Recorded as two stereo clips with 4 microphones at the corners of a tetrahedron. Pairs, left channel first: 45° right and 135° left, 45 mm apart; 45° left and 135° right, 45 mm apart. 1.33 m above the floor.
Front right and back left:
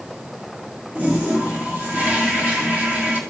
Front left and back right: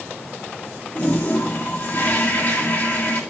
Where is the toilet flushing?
80° left, 2.0 m.